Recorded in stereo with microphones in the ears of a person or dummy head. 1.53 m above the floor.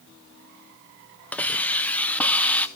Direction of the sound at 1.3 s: 10° left (ahead or behind).